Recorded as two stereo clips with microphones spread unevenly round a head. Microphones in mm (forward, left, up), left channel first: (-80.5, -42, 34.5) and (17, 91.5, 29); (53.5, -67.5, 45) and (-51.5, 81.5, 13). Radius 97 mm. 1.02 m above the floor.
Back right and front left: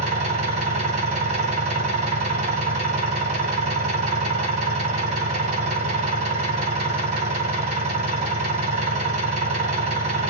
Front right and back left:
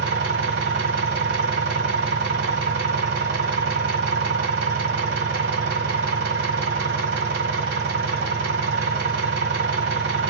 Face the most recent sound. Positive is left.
turn(degrees=95)